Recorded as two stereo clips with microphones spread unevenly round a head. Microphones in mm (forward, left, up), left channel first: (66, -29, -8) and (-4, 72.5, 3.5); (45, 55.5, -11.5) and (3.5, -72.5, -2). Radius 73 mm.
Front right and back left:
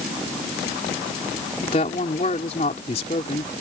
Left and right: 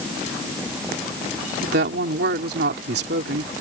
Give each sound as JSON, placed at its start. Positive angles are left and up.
{"t": 1.6, "sound": "a woman speaking", "azimuth_deg": -110}